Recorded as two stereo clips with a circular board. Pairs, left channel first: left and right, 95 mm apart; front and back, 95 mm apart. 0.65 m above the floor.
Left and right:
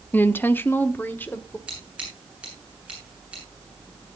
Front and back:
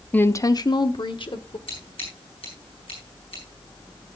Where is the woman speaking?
50° left, 0.5 m; by 1.6 s 20° left, 1.7 m.